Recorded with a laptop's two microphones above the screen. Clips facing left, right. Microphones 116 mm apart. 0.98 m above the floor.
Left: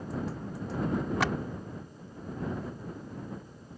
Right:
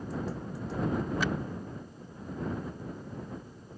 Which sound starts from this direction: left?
A clap, at 1.2 s.